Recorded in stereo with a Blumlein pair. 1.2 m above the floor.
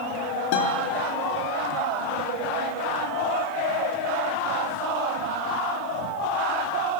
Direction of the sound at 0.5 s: 50° left.